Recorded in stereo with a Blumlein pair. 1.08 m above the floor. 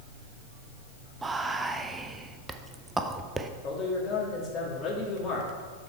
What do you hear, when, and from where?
1.2 s whispering: 15° right, 0.5 m
3.6 s a man speaking: 30° left, 2 m